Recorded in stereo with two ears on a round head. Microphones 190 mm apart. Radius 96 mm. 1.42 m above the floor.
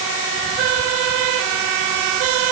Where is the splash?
No splash in this recording.